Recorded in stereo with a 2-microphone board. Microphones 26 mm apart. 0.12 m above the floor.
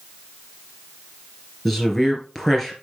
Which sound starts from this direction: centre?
A man speaking, at 1.6 s.